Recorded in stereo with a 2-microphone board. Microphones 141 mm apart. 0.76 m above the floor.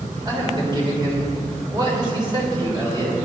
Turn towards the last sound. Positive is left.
turn(degrees=-35)  # may be behind; listen again after turning